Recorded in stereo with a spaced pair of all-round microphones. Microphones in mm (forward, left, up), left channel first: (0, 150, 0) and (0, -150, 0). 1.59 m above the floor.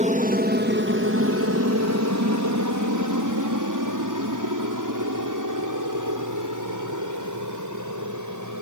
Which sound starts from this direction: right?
An aircraft, at 0.0 s.